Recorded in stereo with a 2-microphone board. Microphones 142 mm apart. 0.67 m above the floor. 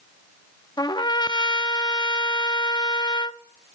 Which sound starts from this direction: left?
A trumpet, at 0.8 s.